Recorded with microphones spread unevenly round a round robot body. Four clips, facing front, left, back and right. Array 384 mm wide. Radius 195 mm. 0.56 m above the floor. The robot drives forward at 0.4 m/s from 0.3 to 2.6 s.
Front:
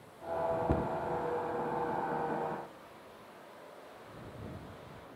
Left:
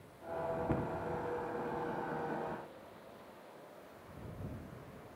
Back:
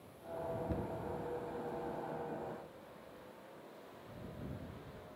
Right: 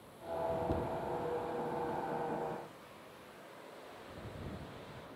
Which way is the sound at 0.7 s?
5° left.